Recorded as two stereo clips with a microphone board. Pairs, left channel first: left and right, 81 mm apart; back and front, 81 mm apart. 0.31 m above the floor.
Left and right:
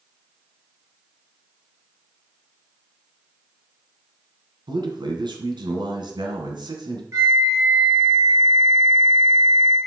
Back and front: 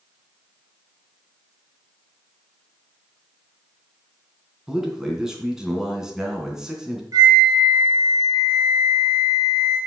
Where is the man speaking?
85° right, 2.5 m.